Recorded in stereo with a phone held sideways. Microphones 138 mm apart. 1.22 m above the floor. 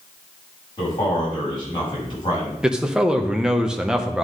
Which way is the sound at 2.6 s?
5° right (ahead or behind).